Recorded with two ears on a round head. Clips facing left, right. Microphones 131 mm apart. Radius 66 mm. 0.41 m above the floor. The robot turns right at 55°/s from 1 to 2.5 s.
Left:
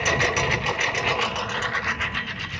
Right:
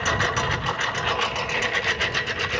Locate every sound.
0.0 s a lawn mower: 15° left (ahead or behind); by 2.6 s 65° right (ahead or behind)